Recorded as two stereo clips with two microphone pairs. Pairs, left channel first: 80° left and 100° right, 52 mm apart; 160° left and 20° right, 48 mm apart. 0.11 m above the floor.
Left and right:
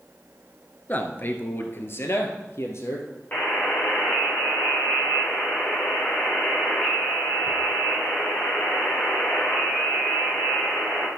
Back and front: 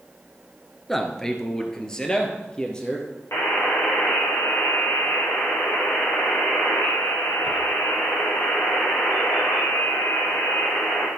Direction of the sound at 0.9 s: 80° left.